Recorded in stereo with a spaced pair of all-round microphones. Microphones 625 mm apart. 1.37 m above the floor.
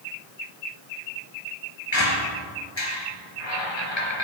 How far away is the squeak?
About 3.5 m.